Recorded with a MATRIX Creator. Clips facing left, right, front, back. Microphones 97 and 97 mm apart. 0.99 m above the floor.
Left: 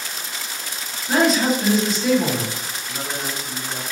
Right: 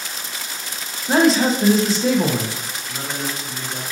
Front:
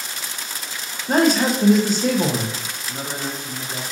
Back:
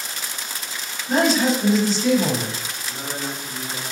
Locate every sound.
1.1 s a man speaking: 35° right, 0.9 m
2.9 s a man speaking: 30° left, 1.4 m